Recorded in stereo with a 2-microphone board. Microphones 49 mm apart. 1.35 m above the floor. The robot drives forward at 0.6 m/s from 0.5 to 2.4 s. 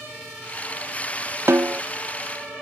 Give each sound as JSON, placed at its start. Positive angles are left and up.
{"t": 1.5, "sound": "a snare drum", "side_deg": -55, "distance_m": 0.6}